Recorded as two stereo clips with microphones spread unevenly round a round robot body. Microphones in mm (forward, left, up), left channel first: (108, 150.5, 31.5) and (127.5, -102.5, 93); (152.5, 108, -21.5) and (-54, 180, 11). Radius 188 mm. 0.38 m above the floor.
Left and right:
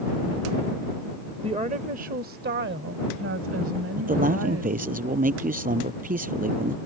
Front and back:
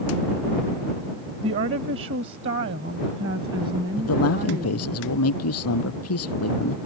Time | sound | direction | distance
1.4 | a woman speaking | 165° right | ?
4.0 | a man speaking | 30° right | ?